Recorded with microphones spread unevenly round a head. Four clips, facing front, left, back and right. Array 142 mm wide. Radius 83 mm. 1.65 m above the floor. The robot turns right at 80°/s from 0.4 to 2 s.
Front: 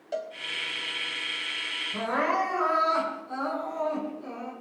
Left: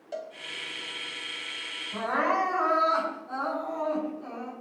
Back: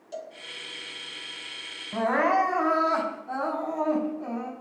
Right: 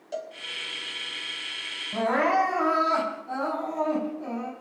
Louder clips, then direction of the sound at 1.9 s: Right 4 dB, back 4 dB; 150° right.